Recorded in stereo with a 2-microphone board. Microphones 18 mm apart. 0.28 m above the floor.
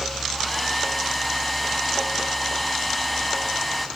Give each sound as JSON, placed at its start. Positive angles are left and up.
{"t": 0.3, "sound": "a hair dryer", "side_deg": 0, "distance_m": 2.5}